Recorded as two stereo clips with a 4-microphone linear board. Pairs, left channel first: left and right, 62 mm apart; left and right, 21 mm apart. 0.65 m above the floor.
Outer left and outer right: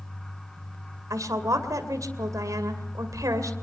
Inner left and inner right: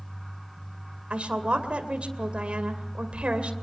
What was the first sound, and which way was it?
A woman speaking, 65° right (ahead or behind).